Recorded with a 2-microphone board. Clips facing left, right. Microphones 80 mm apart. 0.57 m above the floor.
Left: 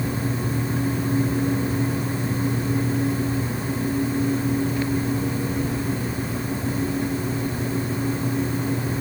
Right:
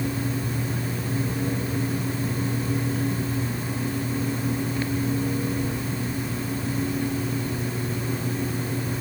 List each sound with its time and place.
Only background noise.